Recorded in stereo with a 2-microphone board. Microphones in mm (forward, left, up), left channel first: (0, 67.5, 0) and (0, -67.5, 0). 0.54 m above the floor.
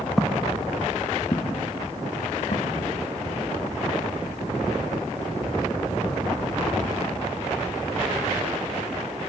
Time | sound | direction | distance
0.2 | footsteps | centre (ahead or behind) | 1.7 m